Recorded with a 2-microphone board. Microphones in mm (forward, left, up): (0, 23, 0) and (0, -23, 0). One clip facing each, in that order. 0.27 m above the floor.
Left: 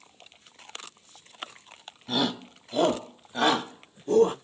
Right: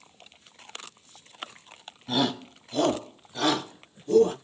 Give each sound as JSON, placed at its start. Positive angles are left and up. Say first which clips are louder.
{"t": 2.1, "sound": "a shout", "louder": "right 1 dB", "side_deg": 0, "distance_m": 1.1}